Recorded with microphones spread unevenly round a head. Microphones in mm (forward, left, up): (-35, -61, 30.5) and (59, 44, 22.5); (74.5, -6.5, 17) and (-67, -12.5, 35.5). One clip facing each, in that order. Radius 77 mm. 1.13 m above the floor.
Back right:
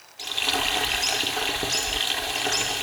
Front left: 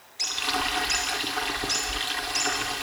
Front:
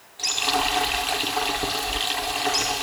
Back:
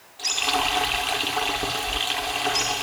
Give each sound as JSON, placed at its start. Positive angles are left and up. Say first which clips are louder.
{"t": 0.2, "sound": "frying", "louder": "back right 1 dB, front 1 dB", "azimuth_deg": -90, "distance_m": 5.5}